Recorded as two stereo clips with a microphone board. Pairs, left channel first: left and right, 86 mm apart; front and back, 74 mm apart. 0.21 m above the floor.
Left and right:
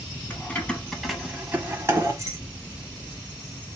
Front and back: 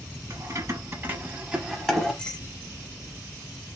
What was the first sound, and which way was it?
Keys jangling, 155° left.